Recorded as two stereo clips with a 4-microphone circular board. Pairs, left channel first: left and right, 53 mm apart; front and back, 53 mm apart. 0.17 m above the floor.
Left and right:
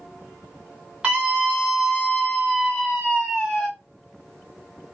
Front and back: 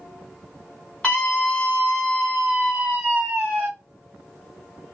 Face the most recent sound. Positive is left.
turn(degrees=135)